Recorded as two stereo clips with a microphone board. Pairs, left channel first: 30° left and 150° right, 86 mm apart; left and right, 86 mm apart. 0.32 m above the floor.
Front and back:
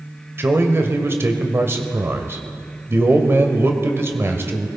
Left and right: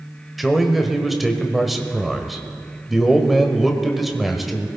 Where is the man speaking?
Straight behind, 1.2 m.